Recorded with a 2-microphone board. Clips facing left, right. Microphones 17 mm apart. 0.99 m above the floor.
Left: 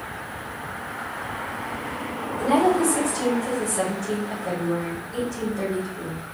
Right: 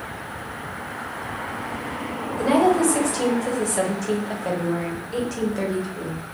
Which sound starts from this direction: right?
A woman speaking, at 2.4 s.